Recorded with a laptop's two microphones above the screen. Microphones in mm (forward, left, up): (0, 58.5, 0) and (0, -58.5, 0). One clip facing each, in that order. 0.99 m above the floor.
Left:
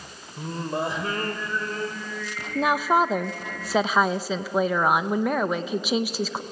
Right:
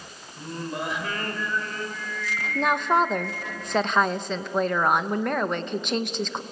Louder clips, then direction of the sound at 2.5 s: Left 1 dB; 5° left (ahead or behind).